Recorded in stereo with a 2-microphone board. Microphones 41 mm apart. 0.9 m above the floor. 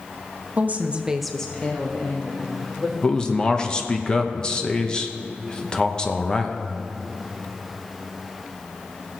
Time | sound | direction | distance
0.6 | a woman speaking | 45° right (ahead or behind) | 1.1 m
3.0 | a man speaking | 20° left (ahead or behind) | 0.9 m